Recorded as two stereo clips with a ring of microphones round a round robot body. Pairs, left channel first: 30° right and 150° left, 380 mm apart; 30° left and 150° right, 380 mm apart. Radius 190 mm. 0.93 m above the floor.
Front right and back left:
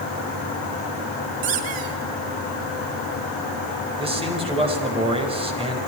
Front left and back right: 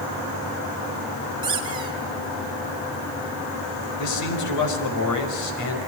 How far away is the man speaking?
About 5.5 m.